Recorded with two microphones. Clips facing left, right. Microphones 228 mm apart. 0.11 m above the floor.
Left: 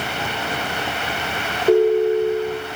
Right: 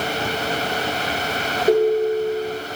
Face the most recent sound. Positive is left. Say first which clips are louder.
# left 2 dB
turn(degrees=-20)  # may be behind; listen again after turning